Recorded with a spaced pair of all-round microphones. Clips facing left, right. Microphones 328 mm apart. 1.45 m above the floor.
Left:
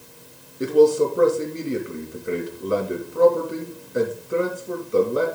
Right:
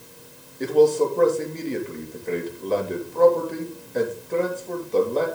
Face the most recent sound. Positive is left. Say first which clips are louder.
# left 2 dB
turn(degrees=15)  # may be behind; listen again after turning